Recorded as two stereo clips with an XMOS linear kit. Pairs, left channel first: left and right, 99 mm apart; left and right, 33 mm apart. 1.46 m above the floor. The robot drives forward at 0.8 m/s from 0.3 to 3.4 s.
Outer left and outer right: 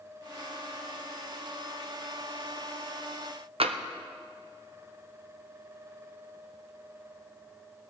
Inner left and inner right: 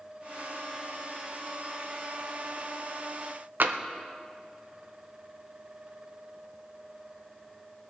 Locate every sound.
3.6 s tapping: 70° right (ahead or behind), 0.8 m